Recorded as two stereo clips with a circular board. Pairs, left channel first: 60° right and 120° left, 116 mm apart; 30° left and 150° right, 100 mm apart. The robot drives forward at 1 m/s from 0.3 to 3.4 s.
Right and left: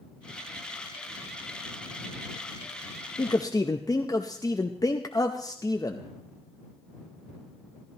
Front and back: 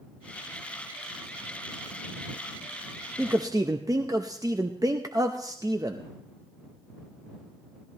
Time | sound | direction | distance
3.2 | a man speaking | 75° right | 0.5 m